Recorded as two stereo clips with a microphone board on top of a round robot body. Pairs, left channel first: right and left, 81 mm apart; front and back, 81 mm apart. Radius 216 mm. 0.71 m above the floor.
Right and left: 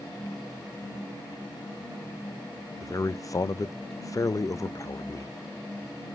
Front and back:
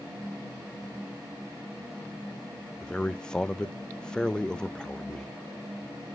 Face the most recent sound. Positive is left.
turn(degrees=-75)